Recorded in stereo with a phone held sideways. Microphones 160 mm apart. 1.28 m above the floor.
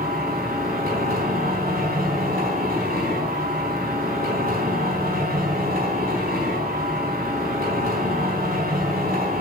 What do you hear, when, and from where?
0.0 s a machine running: 80° right, 4 m